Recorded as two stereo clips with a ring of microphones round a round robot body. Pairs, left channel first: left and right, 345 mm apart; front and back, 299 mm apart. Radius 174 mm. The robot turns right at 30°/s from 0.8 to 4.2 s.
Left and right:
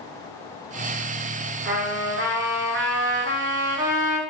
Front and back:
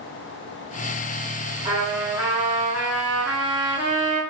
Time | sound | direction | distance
1.6 | a trumpet | 120° right | 0.7 m